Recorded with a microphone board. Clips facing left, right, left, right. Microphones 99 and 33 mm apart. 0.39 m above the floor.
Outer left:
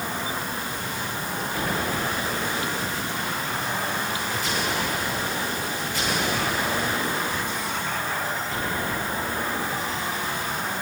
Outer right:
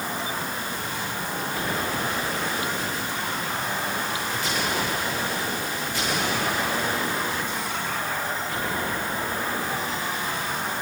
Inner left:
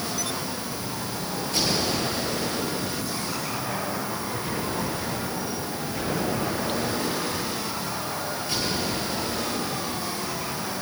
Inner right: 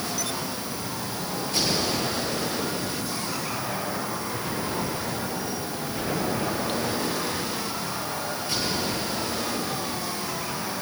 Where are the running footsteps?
No running footsteps in this recording.